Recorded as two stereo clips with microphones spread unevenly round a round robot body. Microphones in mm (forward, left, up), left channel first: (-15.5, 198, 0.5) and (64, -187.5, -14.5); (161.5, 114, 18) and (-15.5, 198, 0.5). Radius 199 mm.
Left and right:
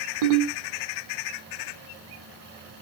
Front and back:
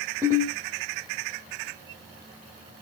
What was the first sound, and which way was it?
A ringtone, 120° right.